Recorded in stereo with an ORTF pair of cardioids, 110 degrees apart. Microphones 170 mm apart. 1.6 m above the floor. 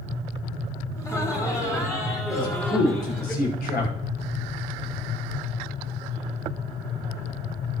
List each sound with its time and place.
1.0 s laughter: 20° left, 3.5 m; by 3.3 s 15° left, 4.5 m
2.3 s a man speaking: 60° left, 5.5 m